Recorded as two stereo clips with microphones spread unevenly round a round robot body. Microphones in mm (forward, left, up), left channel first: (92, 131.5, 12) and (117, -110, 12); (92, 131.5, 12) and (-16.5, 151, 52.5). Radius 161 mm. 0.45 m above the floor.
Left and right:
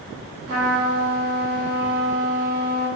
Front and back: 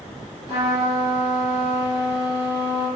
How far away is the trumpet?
About 1.4 m.